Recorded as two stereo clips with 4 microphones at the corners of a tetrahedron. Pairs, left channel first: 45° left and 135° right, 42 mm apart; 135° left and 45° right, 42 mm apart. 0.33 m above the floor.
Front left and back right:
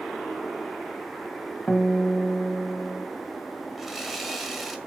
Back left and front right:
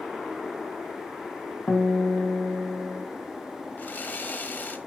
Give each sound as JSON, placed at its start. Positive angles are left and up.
{"t": 1.7, "sound": "a guitar", "azimuth_deg": 120, "distance_m": 1.9}
{"t": 3.8, "sound": "sawing", "azimuth_deg": 140, "distance_m": 1.3}